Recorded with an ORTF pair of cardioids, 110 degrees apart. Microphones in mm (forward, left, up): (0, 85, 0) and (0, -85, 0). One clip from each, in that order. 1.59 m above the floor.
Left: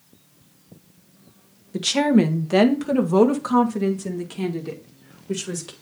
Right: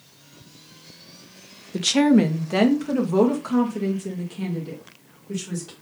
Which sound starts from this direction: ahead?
A woman speaking, at 1.7 s.